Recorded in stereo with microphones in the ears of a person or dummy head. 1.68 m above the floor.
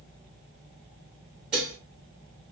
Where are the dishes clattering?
10° right (ahead or behind), 0.6 m.